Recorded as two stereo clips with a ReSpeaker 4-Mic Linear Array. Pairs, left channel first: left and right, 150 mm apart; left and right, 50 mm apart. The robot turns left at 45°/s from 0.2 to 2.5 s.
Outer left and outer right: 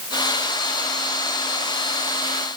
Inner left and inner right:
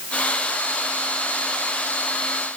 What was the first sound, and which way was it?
Only background noise.